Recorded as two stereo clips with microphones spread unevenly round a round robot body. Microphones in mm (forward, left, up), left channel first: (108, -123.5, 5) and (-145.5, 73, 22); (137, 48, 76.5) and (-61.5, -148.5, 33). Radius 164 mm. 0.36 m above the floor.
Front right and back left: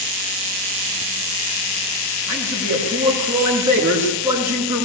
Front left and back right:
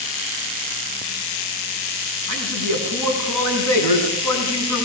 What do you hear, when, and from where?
2.3 s a man speaking: 60° left, 5 m